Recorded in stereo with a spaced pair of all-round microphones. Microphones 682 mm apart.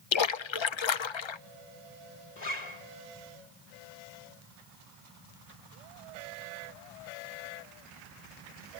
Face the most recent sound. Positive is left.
turn(degrees=75)  # may be behind; listen again after turning